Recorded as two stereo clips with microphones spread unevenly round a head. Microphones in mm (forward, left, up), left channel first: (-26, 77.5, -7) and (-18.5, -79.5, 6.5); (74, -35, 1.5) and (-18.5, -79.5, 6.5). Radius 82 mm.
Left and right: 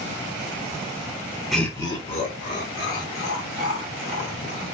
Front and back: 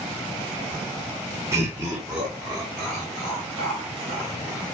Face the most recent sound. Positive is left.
turn(degrees=105)